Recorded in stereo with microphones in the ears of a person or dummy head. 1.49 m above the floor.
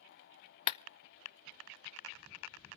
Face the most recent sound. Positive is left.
turn(degrees=45)  # may be behind; listen again after turning